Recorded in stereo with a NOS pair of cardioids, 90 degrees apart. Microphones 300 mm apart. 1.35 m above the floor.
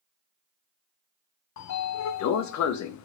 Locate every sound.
1.6 s a sliding door: 70° left, 0.8 m